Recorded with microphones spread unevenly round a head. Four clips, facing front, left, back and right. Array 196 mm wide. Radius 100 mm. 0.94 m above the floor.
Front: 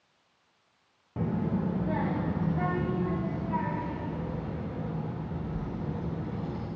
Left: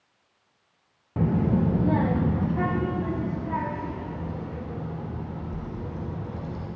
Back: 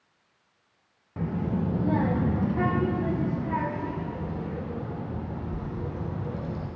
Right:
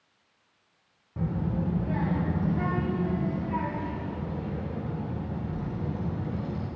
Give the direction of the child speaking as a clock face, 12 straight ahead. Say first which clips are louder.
Left 7 dB, back 1 dB; 9 o'clock.